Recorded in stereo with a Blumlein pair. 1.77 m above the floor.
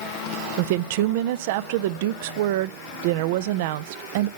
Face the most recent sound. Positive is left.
turn(degrees=-50)